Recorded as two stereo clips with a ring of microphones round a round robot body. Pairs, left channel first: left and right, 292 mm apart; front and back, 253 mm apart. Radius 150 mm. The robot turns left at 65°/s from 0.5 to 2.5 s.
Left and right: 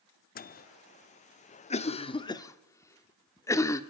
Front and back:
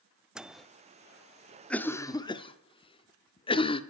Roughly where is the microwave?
Left.